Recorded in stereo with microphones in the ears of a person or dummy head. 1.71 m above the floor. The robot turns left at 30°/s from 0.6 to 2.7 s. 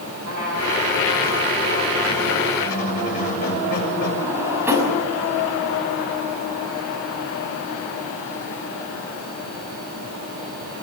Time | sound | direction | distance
0.2 | a trumpet | 100° right | 10 m
2.6 | a squeak | 45° left (ahead or behind) | 7 m
4.2 | a drawer | 10° right (ahead or behind) | 5.5 m